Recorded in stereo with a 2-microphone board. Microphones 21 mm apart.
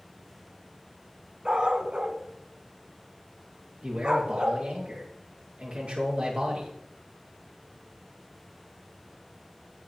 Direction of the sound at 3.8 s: 70° right (ahead or behind).